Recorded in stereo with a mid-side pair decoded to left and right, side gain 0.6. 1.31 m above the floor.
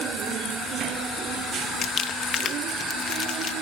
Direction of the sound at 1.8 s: 40° left.